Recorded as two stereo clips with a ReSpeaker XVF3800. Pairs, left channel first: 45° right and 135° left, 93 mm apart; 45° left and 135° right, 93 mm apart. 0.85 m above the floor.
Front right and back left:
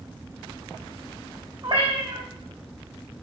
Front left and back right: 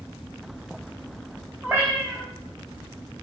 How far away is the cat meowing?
About 3.5 m.